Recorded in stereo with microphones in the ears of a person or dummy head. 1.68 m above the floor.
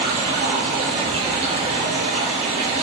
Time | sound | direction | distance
0.0 | running water | 35° right (ahead or behind) | 1.4 m